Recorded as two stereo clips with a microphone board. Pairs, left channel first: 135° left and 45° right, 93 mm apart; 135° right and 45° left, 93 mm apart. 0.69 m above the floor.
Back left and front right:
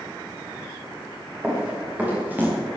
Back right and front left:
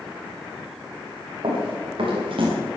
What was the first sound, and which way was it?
Running footsteps, 35° left.